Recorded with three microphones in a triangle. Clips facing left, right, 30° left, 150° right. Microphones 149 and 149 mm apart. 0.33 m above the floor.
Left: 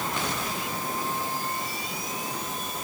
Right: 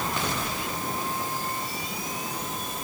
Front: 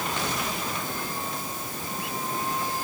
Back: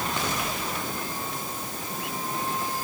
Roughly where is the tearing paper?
No tearing paper in this recording.